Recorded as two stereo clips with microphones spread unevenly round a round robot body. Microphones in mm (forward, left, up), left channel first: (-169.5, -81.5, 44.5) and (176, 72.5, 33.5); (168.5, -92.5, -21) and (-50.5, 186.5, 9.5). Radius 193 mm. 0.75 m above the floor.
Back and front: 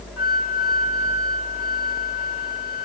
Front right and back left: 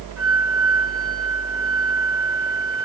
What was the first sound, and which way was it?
A flute, 155° left.